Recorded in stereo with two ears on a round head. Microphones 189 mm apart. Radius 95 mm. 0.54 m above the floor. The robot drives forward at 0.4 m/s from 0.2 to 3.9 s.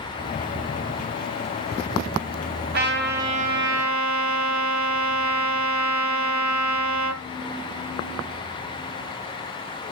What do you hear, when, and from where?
2.7 s a trumpet: 50° right (ahead or behind), 1.6 m; by 7.2 s 65° right (ahead or behind), 1.3 m